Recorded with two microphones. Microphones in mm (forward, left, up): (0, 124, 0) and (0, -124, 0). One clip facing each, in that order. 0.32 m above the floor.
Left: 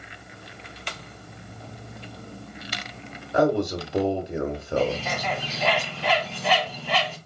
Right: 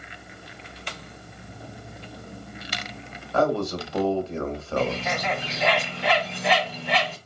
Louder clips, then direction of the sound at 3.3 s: Left 2 dB; 15° left (ahead or behind).